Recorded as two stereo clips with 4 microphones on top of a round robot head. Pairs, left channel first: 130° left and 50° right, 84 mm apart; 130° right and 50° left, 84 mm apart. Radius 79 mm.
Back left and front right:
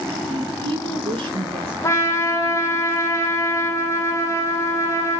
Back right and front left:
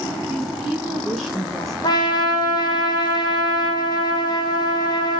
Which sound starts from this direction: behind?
A trumpet, at 1.8 s.